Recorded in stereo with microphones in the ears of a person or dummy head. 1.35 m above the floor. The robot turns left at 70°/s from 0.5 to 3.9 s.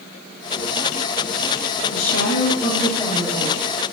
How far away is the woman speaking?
About 3 m.